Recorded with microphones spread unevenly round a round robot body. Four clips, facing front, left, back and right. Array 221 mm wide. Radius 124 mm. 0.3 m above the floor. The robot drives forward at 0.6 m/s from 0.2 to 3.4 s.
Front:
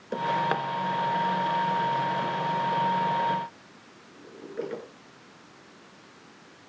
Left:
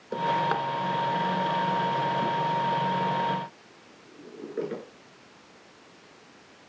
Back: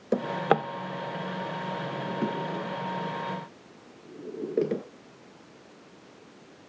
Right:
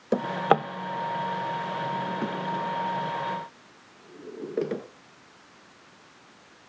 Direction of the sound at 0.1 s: 130° right.